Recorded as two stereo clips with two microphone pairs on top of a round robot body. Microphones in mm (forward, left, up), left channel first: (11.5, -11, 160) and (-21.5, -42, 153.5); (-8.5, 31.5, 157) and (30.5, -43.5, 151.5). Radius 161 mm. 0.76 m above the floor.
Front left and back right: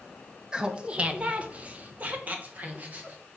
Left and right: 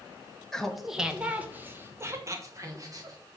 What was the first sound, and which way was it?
Laughter, 160° right.